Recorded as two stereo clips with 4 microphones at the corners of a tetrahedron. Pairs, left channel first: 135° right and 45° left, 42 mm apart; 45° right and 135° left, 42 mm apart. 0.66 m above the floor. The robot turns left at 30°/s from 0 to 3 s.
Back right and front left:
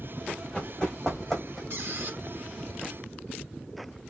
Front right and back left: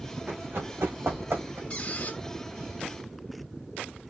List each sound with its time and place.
0.3 s running footsteps: 160° left, 4 m; by 1.6 s 135° left, 2 m
1.7 s a squeak: 15° left, 1.0 m; by 2.2 s straight ahead, 1.0 m